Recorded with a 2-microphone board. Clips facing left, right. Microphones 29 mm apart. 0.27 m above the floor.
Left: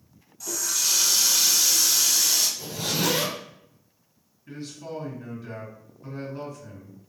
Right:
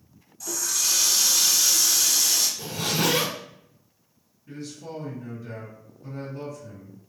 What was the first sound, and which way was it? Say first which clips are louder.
A running tap: even; 10° left (ahead or behind).